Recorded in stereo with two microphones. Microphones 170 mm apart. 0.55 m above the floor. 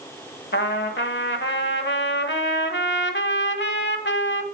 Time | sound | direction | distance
0.5 | a trumpet | 85° left | 0.9 m